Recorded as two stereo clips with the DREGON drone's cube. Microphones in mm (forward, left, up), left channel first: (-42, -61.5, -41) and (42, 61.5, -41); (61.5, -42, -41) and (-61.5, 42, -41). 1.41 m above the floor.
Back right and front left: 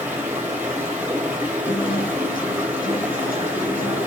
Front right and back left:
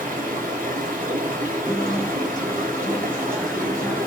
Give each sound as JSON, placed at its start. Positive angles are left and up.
{"t": 0.0, "sound": "running water", "azimuth_deg": 135, "distance_m": 2.5}
{"t": 1.7, "sound": "a guitar", "azimuth_deg": -120, "distance_m": 2.0}